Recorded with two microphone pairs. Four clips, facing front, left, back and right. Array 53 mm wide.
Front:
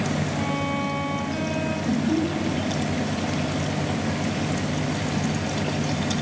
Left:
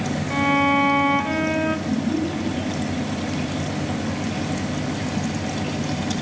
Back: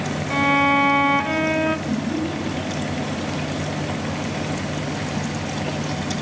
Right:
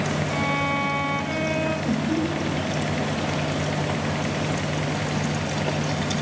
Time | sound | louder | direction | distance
0.3 | a violin | left 9 dB, back 9 dB | 165° left | 0.6 m
1.9 | laughter | left 1 dB, front 1 dB | 20° right | 5 m